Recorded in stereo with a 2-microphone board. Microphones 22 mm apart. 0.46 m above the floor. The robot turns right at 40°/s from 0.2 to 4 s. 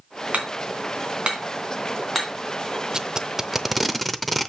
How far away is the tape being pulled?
About 0.6 m.